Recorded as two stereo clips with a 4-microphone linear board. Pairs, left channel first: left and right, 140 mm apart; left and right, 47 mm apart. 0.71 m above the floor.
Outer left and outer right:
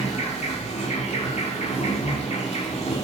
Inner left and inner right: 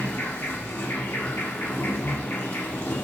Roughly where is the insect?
Left.